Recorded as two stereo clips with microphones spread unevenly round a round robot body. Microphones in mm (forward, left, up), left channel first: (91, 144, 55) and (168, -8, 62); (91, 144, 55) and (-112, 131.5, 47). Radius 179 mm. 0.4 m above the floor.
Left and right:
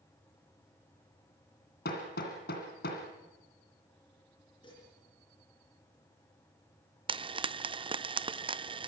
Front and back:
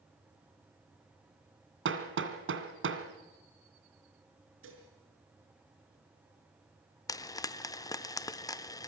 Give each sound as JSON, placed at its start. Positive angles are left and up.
{"t": 1.9, "sound": "hammering", "azimuth_deg": 165, "distance_m": 2.0}
{"t": 4.6, "sound": "dishes clattering", "azimuth_deg": -170, "distance_m": 5.0}
{"t": 7.1, "sound": "frying", "azimuth_deg": -55, "distance_m": 0.7}